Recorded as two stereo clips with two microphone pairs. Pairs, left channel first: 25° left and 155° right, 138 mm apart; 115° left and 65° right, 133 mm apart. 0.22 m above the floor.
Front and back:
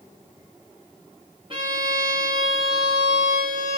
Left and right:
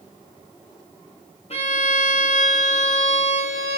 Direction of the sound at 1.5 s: 155° left.